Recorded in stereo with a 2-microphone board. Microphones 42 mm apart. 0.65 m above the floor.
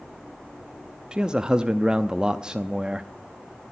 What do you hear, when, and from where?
1.1 s a man speaking: 20° right (ahead or behind), 0.5 m